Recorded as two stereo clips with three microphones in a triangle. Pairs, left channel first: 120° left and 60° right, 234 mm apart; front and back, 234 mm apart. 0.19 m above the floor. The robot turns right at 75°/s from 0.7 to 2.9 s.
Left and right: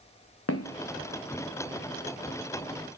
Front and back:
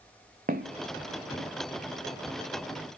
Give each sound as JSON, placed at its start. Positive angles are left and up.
{"t": 0.5, "sound": "footsteps", "azimuth_deg": 125, "distance_m": 0.9}